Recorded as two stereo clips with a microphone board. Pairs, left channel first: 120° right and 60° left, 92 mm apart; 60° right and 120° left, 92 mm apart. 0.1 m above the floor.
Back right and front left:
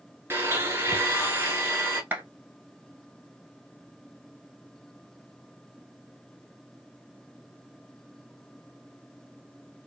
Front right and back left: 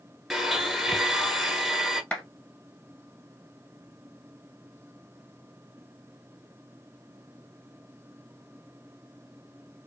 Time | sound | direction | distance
0.3 | a blender | 35° left | 0.7 m
2.1 | a clap | 10° left | 1.0 m